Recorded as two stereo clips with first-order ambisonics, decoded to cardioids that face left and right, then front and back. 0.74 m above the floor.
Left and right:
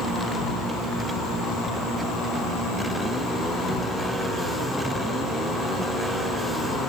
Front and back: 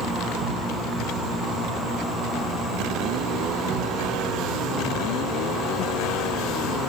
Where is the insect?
145° left, 6.5 m.